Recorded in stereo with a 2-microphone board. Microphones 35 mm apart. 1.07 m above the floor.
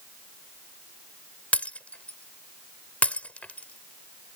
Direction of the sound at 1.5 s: 45° left (ahead or behind).